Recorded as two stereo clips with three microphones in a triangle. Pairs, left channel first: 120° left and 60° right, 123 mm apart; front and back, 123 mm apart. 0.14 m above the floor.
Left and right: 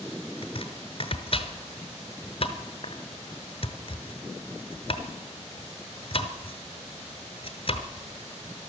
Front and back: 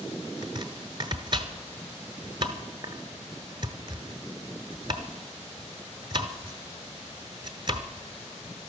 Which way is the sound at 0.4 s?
140° left.